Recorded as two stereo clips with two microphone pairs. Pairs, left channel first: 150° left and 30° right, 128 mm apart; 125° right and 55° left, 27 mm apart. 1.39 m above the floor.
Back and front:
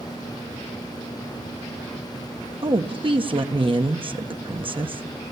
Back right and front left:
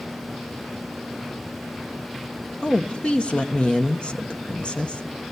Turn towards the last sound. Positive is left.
turn(degrees=-80)